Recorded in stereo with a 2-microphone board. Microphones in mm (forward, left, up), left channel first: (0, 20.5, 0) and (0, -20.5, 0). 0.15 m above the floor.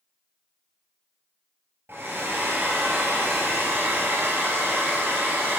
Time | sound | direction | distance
1.9 | a hair dryer | 65° right (ahead or behind) | 1.8 m